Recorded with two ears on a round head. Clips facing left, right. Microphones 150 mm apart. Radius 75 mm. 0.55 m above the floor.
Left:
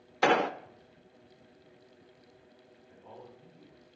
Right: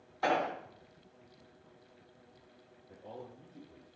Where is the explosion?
80° left, 0.5 m.